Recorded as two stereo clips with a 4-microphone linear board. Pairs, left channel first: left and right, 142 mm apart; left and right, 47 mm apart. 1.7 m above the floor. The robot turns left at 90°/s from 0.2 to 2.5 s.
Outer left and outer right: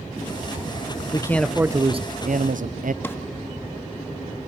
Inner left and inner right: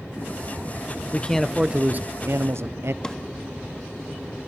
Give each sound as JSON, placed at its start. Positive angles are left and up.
{"t": 1.1, "sound": "a man speaking", "azimuth_deg": 30, "distance_m": 0.8}
{"t": 3.0, "sound": "a drawer", "side_deg": 15, "distance_m": 1.5}